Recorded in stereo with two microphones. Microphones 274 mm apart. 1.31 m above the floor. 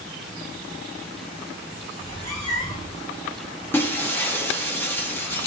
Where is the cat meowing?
60° right (ahead or behind), 1.8 m.